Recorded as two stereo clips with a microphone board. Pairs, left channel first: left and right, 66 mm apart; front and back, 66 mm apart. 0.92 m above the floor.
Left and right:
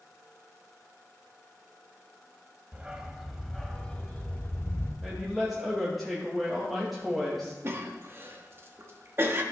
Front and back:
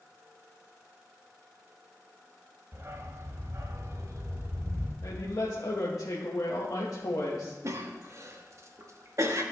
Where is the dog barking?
150° right, 0.9 m; by 4.9 s 145° left, 1.5 m.